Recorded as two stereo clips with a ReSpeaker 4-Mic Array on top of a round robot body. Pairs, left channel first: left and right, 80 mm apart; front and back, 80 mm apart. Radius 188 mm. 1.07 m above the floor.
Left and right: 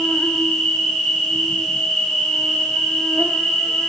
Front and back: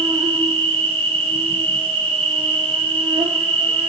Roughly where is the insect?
Behind.